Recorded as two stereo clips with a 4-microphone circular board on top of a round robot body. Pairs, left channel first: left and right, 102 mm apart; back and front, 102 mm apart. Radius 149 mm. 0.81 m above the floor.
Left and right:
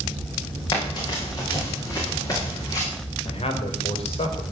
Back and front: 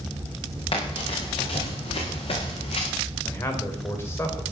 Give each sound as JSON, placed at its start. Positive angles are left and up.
{"t": 0.7, "sound": "running footsteps", "azimuth_deg": 140, "distance_m": 7.5}
{"t": 3.2, "sound": "a man speaking", "azimuth_deg": 115, "distance_m": 4.0}